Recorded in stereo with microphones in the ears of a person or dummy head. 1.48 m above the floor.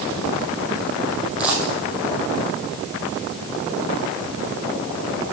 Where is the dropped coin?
10° right (ahead or behind), 3 m.